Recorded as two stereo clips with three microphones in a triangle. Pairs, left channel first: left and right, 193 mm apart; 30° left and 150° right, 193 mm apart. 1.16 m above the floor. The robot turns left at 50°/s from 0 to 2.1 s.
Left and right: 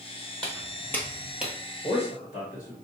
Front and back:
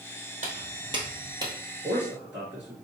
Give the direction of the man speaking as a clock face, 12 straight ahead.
7 o'clock.